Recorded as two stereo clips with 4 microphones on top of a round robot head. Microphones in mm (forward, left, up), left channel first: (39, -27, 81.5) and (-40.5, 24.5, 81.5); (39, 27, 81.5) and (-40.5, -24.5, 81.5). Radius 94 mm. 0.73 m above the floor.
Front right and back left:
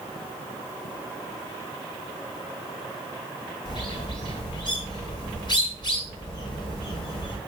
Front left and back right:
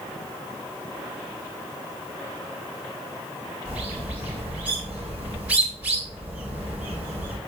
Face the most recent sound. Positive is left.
turn(degrees=-70)